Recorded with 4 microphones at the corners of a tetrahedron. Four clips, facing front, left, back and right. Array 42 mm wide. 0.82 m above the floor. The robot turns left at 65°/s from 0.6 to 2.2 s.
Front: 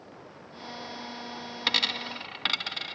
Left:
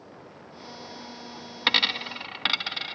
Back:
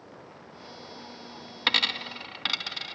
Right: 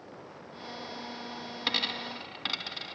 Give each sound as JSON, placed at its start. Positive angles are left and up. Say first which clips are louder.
{"t": 1.7, "sound": "a dropped coin", "louder": "left 8 dB, back 2 dB", "azimuth_deg": 110, "distance_m": 0.5}